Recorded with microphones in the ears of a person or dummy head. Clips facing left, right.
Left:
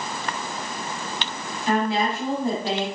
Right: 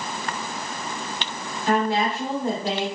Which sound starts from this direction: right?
A woman speaking, at 1.7 s.